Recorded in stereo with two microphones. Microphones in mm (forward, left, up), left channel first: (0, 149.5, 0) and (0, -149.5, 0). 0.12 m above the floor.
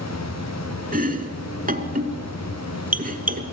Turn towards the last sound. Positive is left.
turn(degrees=-30)  # may be behind; listen again after turning